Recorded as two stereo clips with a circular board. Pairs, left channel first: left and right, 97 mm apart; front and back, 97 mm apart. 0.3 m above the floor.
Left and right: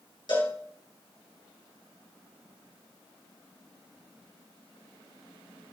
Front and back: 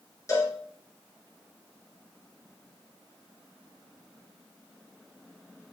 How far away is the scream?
I don't hear a scream.